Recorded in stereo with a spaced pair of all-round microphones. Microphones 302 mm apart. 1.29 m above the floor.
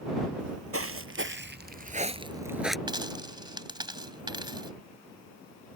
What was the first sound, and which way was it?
Footsteps, 55° right (ahead or behind).